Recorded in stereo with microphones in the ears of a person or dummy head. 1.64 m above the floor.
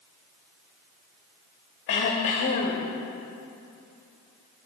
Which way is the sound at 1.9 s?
40° left (ahead or behind).